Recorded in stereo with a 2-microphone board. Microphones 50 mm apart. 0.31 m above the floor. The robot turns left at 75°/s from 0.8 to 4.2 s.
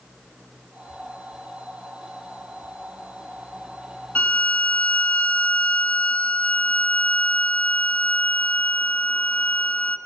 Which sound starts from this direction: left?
A violin, at 4.2 s.